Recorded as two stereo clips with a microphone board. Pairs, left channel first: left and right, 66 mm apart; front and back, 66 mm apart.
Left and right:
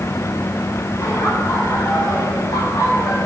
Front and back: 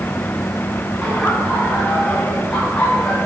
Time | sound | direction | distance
1.0 | laughter | 90° left | 6 m